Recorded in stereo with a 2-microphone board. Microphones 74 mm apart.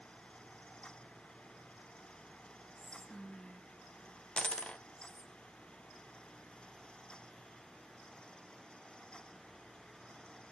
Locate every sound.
2.8 s whispering: 5° left (ahead or behind), 1.1 m
4.4 s a dropped coin: 15° left (ahead or behind), 0.5 m